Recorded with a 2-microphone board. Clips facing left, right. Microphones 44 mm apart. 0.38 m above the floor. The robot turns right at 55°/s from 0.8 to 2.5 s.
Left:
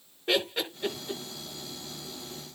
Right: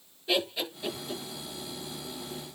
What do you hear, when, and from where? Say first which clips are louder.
0.3 s laughter: left 1 dB; 50° left (ahead or behind), 5.5 m; by 1.2 s 25° left (ahead or behind), 5.5 m